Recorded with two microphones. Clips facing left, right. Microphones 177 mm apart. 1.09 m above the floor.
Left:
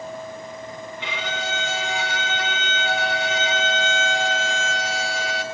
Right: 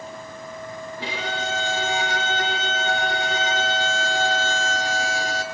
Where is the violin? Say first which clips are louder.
Right 1 dB; 35° right (ahead or behind), 3 m.